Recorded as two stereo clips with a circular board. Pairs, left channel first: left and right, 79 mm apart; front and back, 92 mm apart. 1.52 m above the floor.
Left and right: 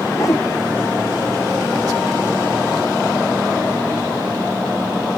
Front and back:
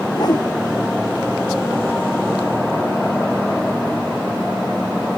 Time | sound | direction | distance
0.1 | a whoosh | 40° left | ?